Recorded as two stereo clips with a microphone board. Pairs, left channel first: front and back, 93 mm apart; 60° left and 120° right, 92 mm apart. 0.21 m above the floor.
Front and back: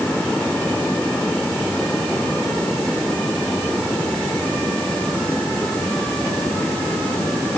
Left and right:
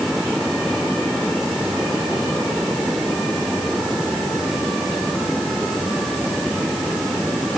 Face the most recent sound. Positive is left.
No sound to turn to.